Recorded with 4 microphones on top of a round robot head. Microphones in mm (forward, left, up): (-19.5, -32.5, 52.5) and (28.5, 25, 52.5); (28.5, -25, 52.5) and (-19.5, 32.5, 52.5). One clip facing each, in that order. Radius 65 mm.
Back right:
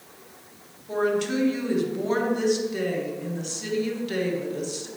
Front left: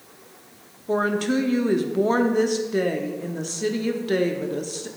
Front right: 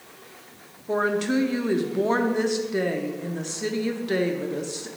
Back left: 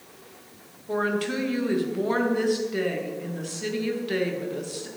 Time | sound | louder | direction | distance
0.9 | a woman speaking | front left 2 dB, front right 3 dB | 10° left | 0.7 m